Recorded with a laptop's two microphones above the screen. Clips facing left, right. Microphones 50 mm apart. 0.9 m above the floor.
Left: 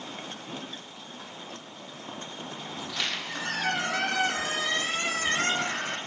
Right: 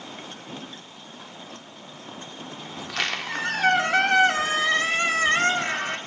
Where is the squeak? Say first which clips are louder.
Right 5 dB; 65° right (ahead or behind), 1.4 m.